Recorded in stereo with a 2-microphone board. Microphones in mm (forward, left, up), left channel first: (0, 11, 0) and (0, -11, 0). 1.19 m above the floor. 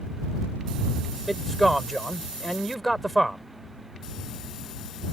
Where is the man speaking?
5° left (ahead or behind).